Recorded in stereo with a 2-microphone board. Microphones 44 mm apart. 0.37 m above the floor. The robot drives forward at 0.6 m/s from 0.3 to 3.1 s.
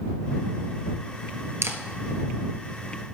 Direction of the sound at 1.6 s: 75° right (ahead or behind).